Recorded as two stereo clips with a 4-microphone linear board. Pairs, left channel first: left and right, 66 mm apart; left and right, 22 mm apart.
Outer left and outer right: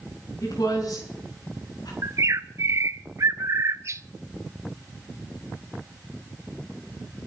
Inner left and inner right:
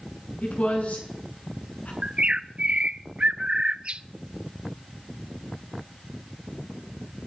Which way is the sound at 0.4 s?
75° left (ahead or behind).